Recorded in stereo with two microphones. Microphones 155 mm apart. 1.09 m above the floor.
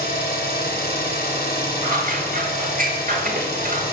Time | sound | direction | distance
0.0 | an engine running | 80° left | 2 m
1.8 | scissors | 60° right (ahead or behind) | 1.2 m